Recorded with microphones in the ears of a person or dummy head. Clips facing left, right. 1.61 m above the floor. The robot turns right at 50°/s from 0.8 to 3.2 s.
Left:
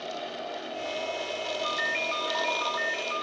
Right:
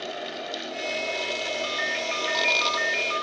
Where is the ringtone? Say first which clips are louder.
Right 2 dB; 170° left, 2.5 m; by 3.2 s 110° right, 2.5 m.